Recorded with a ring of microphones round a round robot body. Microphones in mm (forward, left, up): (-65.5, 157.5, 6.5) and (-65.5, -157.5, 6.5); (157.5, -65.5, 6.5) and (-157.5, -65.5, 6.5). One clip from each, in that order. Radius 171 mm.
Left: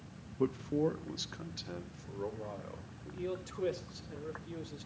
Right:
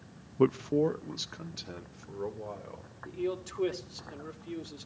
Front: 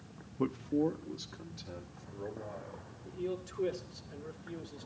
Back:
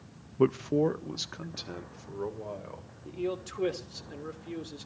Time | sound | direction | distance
0.4 | a man speaking | 115° right | 0.5 m
3.0 | a man speaking | 160° right | 3 m